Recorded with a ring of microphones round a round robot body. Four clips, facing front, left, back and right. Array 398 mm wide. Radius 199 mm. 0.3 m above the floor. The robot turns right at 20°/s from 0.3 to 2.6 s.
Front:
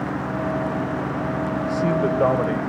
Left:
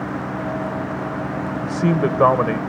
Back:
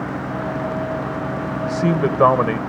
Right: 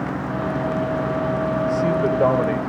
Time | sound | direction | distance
1.6 | a man speaking | 130° left | 1.2 m